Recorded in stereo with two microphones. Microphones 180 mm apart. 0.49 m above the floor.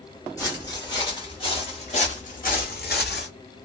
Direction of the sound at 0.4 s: 20° left (ahead or behind).